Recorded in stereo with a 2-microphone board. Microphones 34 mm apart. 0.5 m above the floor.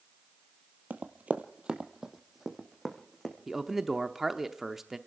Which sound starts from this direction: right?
Running footsteps, at 0.9 s.